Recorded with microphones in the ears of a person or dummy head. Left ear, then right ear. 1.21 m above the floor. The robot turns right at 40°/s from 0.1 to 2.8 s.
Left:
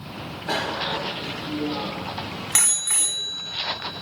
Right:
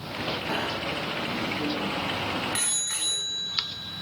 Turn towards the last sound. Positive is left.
turn(degrees=40)  # may be behind; listen again after turning